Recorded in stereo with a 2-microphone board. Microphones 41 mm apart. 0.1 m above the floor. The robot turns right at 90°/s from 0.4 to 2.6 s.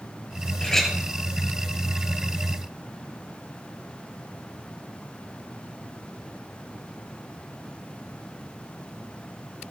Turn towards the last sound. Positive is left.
turn(degrees=-25)